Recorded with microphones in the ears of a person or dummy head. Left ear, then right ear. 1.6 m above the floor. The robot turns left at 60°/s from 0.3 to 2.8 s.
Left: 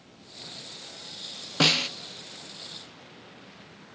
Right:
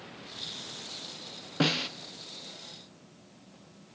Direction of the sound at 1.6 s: 35° left (ahead or behind).